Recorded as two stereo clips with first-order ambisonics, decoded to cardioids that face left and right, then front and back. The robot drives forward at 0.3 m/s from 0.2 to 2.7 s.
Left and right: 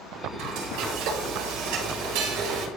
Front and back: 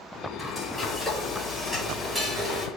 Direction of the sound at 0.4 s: 80° right.